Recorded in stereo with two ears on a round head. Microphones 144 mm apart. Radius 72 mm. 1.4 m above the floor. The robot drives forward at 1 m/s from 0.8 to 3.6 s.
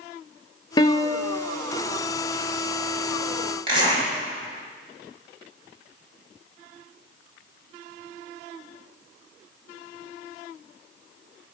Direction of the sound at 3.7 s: 35° right (ahead or behind).